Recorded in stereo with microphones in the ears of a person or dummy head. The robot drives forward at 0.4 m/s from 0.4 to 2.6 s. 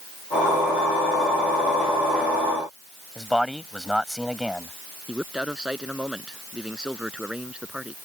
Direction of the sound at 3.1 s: Centre (ahead or behind).